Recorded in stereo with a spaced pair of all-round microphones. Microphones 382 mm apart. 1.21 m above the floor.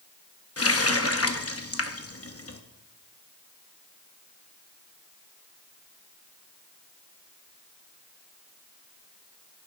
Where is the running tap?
35° left (ahead or behind), 0.9 m.